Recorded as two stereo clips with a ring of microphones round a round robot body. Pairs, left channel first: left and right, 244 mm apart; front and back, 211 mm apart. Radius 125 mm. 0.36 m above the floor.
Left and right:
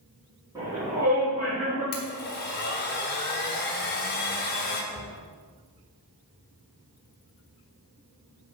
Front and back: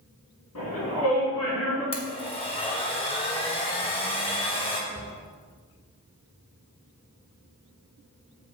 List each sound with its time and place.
0.6 s a shout: 15° right, 4 m; by 1.8 s 5° right, 4 m
1.9 s a blender: 55° left, 2 m
4.9 s a cupboard door: 135° left, 1.5 m